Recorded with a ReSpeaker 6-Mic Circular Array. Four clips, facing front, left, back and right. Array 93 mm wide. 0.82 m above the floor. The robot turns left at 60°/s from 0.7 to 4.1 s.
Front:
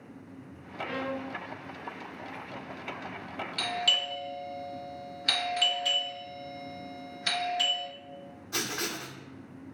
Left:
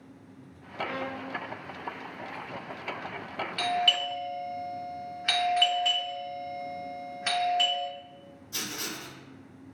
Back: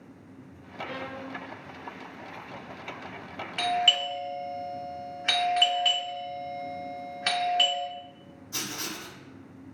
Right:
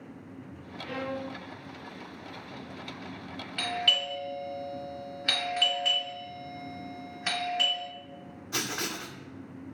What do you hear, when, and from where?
0.8 s a violin: 90° left, 1.5 m; by 1.4 s 55° left, 1.5 m
3.6 s a doorbell: 170° right, 0.8 m; by 5.9 s 155° left, 0.8 m
5.6 s a doorbell: straight behind, 1.0 m
8.5 s writing: 65° right, 0.5 m